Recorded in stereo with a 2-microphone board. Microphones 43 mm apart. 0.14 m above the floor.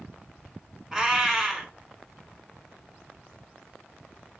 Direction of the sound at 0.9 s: 15° right (ahead or behind).